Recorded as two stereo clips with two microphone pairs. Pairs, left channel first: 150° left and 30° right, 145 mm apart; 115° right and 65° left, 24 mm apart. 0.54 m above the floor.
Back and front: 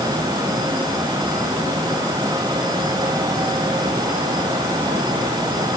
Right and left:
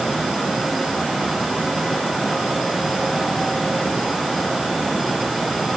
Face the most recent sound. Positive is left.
No sound to turn to.